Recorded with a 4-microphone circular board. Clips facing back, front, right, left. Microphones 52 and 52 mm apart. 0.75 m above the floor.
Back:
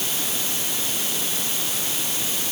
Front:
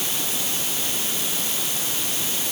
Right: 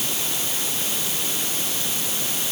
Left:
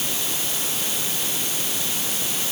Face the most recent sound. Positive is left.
No sound to turn to.